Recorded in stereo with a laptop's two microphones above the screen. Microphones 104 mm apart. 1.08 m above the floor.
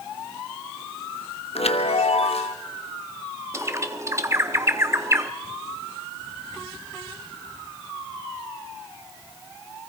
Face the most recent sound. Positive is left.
turn(degrees=-30)  # may be behind; listen again after turning